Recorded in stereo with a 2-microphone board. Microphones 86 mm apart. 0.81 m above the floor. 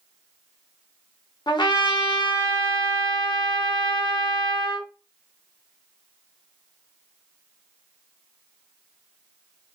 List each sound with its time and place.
1.5 s a trumpet: 60° left (ahead or behind), 0.8 m